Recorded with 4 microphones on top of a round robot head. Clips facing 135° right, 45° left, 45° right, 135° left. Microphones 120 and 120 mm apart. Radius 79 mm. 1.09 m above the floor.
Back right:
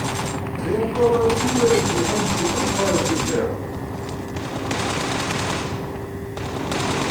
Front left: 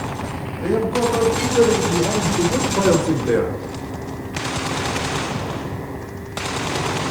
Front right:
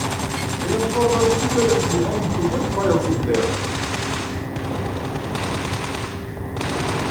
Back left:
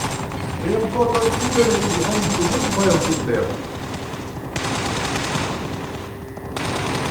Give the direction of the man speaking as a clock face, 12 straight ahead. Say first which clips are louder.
Even, back left 1 dB; 10 o'clock.